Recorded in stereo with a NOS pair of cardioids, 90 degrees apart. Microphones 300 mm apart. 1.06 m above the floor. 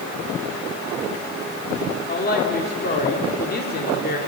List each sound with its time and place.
2.1 s a woman speaking: 30° left, 2.5 m